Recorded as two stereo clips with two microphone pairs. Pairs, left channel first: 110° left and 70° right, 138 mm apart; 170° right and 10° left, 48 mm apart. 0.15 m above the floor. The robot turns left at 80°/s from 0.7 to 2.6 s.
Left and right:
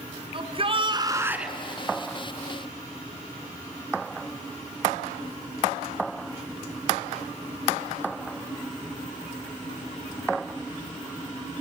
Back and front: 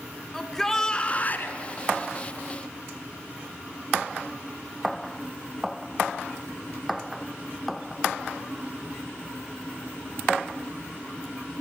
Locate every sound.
0.3 s a shout: 90° right, 1.5 m; by 1.6 s 160° right, 1.5 m